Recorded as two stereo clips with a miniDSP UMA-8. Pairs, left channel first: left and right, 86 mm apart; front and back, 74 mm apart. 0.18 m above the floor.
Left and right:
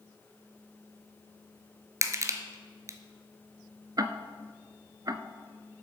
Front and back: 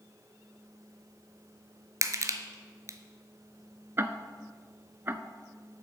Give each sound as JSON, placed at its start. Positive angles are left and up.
{"t": 2.0, "sound": "crushing", "azimuth_deg": -140, "distance_m": 0.9}
{"t": 4.0, "sound": "ticking", "azimuth_deg": -125, "distance_m": 0.6}